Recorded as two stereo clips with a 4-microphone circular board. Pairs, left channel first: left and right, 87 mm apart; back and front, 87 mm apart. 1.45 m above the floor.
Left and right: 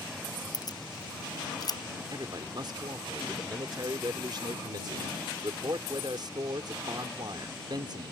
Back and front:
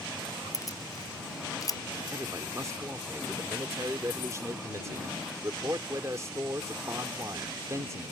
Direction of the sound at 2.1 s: 55° right.